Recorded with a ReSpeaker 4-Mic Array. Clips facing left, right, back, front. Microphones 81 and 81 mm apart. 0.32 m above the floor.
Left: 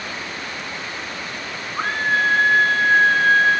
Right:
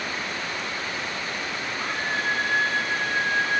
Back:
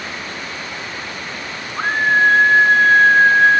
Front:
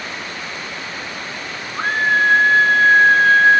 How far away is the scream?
About 5 m.